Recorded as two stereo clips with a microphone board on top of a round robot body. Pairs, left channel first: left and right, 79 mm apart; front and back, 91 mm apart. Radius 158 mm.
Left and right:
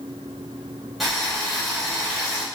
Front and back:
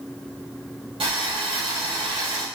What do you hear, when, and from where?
1.0 s boiling: straight behind, 3.5 m